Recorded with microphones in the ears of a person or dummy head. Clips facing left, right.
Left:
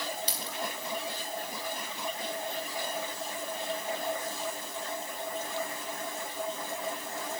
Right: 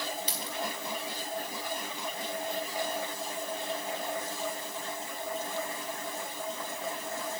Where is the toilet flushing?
I don't hear a toilet flushing.